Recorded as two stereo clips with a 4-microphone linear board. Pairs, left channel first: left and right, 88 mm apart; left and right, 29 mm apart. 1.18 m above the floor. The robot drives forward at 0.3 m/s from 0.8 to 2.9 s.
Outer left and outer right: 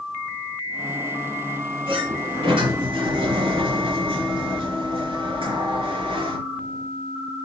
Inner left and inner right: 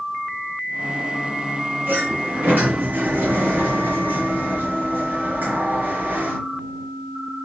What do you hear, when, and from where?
1.9 s a sliding door: 75° right (ahead or behind), 4 m